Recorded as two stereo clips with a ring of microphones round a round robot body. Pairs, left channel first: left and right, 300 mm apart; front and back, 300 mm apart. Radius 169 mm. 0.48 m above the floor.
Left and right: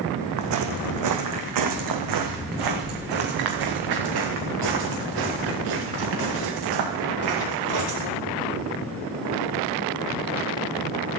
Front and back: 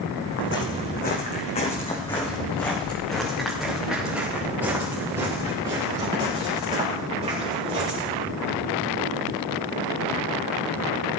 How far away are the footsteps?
About 2.5 m.